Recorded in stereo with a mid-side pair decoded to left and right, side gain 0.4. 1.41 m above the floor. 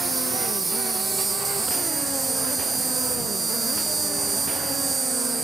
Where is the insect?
30° right.